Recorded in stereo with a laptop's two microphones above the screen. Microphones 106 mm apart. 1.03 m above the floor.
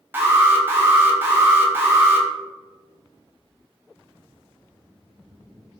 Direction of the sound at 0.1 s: 20° right (ahead or behind).